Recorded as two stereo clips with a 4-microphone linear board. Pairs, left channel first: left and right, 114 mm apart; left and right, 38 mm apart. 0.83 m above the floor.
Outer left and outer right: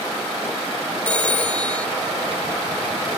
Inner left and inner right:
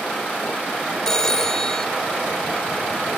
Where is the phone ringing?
10° left (ahead or behind).